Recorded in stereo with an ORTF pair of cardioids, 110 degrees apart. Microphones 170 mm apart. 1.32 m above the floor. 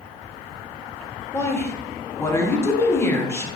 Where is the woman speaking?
15° left, 0.8 m.